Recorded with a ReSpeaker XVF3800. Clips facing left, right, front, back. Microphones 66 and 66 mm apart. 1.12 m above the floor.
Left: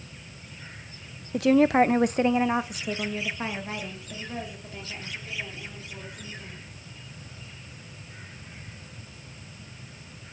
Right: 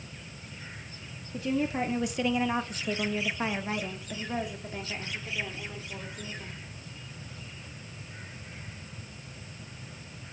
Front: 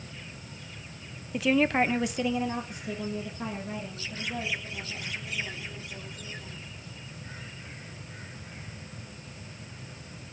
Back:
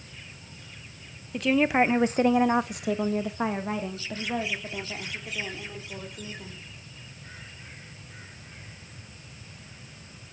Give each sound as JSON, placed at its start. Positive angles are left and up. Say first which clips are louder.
{"t": 1.3, "sound": "a woman speaking", "louder": "left 10 dB, back 2 dB", "azimuth_deg": 85, "distance_m": 0.9}